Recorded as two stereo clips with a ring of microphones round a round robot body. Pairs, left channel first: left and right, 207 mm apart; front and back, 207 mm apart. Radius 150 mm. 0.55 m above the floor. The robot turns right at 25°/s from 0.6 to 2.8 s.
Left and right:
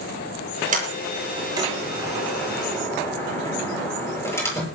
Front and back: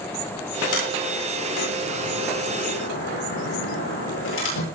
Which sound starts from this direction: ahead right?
A sliding door, at 0.7 s.